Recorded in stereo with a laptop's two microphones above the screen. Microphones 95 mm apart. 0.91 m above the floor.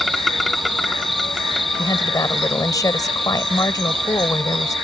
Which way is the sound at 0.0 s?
Centre (ahead or behind).